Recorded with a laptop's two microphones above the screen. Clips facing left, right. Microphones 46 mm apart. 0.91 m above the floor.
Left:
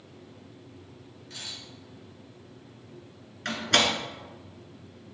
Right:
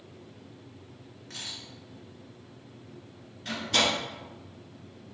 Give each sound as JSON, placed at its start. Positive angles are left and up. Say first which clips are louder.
{"t": 1.3, "sound": "a camera shutter", "louder": "right 1 dB", "side_deg": -75, "distance_m": 2.5}
{"t": 3.5, "sound": "a door slam", "louder": "left 2 dB", "side_deg": 75, "distance_m": 1.5}